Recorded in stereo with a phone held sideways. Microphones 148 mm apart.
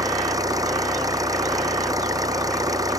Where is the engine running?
25° right (ahead or behind).